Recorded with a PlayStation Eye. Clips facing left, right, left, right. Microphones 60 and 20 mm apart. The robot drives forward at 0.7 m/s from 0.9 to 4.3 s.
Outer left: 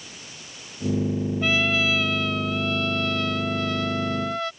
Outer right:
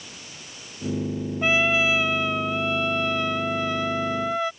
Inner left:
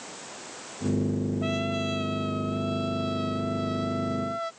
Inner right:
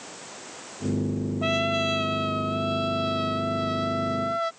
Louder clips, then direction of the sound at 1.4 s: Outer right 3 dB, inner right 4 dB; 20° right (ahead or behind).